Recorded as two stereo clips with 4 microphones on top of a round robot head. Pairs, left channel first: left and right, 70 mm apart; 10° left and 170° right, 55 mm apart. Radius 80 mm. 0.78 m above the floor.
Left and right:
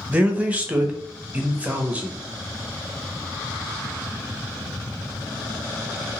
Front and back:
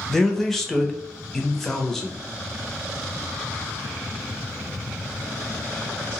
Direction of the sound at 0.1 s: 65° right.